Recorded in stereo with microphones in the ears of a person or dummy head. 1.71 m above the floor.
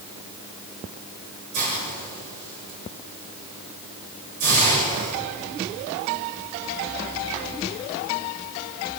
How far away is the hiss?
About 8 m.